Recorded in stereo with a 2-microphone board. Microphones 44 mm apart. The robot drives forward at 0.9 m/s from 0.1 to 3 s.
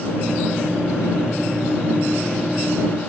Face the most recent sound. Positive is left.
No sound to turn to.